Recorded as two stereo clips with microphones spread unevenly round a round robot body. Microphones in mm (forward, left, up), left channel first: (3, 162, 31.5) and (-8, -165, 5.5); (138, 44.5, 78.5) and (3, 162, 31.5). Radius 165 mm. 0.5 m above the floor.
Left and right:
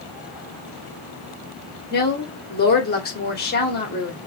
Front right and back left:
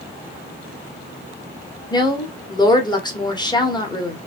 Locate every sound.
1.9 s a woman speaking: 35° left, 1.7 m